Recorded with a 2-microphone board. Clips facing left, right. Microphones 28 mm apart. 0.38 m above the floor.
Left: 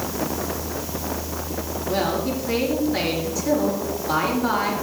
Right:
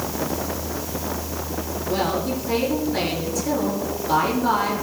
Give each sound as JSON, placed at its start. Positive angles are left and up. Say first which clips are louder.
{"t": 1.9, "sound": "a woman speaking", "louder": "even", "side_deg": 15, "distance_m": 6.5}